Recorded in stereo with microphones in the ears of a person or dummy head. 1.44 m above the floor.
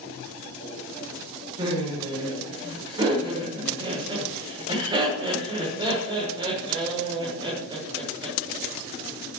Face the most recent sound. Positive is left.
turn(degrees=-20)  # may be behind; listen again after turning